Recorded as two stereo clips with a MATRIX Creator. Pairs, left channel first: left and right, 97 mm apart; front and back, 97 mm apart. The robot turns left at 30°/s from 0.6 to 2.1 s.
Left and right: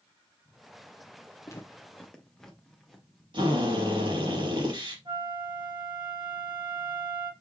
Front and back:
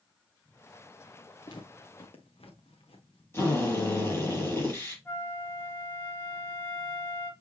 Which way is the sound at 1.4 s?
35° left.